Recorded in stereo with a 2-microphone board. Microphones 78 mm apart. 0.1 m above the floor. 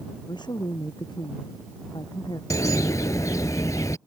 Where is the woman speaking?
75° left (ahead or behind).